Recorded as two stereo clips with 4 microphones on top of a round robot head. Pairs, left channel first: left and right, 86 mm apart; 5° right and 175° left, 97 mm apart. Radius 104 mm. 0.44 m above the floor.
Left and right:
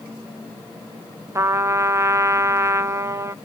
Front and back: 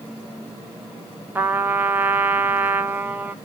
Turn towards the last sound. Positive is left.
turn(degrees=-125)